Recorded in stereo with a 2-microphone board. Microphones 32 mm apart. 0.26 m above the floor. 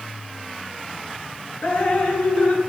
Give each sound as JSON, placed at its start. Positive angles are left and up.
{"t": 1.6, "sound": "dripping", "side_deg": 50, "distance_m": 1.2}